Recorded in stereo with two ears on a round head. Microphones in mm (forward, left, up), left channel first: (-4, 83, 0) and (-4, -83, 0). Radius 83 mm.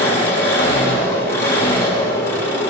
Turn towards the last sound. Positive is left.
turn(degrees=15)  # may be behind; listen again after turning